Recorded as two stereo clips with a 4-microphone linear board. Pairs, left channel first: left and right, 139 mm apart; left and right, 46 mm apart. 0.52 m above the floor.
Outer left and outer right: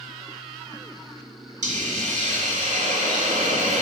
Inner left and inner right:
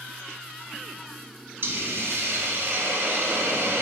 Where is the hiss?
65° right (ahead or behind), 0.8 m.